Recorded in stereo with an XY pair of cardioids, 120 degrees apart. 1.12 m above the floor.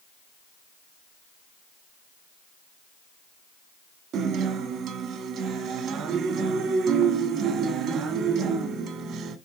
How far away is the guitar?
About 1.2 m.